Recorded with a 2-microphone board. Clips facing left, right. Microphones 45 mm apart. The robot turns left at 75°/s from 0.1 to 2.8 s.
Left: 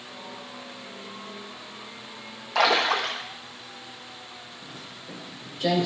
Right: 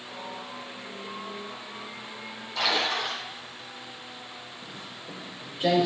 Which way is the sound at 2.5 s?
75° left (ahead or behind).